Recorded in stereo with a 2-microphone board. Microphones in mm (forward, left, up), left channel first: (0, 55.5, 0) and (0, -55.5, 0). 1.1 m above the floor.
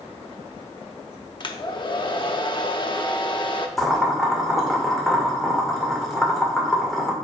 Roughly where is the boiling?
Centre.